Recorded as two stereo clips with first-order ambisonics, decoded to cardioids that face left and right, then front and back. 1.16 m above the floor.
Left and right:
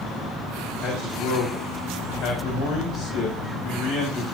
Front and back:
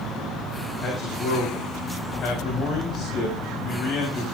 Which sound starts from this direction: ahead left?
A man speaking, at 0.8 s.